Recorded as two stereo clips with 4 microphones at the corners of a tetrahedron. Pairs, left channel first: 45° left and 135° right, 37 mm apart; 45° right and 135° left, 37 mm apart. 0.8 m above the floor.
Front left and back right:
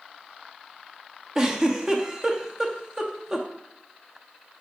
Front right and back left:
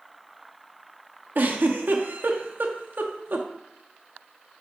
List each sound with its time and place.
1.4 s a giggle: 155° left, 0.9 m